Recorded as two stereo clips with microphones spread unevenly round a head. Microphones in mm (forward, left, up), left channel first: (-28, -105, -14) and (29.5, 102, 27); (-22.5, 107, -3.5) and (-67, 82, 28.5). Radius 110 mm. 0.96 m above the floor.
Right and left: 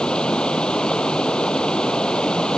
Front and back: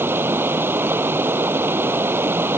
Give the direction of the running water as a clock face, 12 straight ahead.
6 o'clock.